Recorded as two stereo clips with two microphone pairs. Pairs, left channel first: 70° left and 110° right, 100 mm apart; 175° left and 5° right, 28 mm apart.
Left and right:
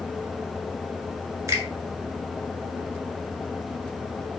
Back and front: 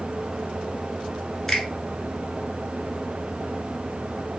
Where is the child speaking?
I don't hear a child speaking.